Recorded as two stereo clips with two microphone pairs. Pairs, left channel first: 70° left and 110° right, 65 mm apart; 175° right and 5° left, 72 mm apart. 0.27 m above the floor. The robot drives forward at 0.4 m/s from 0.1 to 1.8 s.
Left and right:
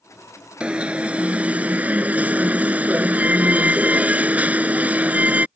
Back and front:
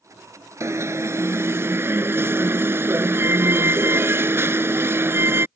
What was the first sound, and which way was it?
An alarm, 40° right.